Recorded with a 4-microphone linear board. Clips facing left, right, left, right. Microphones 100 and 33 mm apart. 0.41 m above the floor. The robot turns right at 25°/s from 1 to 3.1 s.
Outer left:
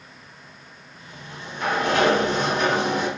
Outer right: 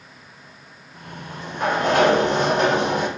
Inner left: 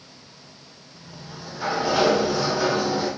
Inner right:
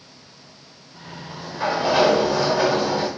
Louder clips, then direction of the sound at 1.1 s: Outer right 4 dB, inner right 4 dB; 130° right.